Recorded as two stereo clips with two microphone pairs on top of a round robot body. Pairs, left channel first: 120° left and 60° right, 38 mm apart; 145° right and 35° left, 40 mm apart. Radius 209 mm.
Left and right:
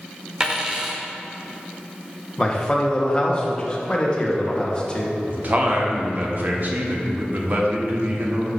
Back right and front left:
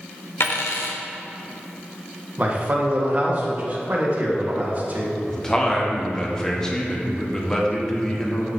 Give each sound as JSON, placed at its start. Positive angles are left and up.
{"t": 0.4, "sound": "a dropped coin", "azimuth_deg": -130, "distance_m": 1.0}
{"t": 2.4, "sound": "a man speaking", "azimuth_deg": 70, "distance_m": 1.5}
{"t": 5.3, "sound": "a man speaking", "azimuth_deg": -80, "distance_m": 1.7}